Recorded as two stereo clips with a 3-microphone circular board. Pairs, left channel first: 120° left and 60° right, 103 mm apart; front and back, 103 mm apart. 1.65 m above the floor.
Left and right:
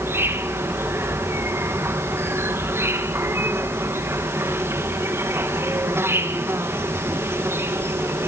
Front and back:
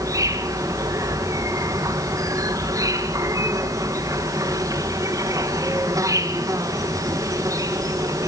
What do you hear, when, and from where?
0.0 s an insect: 125° right, 2.5 m